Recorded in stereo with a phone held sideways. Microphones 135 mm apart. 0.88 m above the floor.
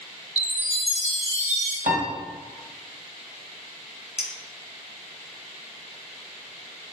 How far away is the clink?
About 0.5 m.